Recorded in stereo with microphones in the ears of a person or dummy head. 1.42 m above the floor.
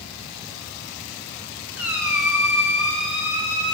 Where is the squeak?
10° right (ahead or behind), 1.5 m.